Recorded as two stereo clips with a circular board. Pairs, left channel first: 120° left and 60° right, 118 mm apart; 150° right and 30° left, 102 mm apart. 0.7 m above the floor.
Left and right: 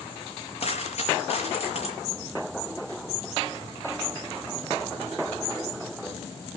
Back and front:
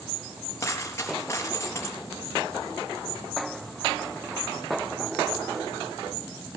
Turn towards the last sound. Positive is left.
turn(degrees=145)